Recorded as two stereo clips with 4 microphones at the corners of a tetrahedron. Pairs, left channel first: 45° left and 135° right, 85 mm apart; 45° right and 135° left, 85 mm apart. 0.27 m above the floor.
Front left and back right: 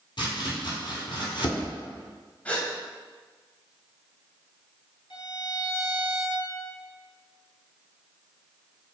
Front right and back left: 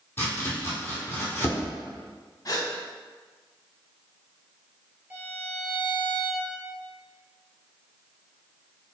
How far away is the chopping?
About 1.2 m.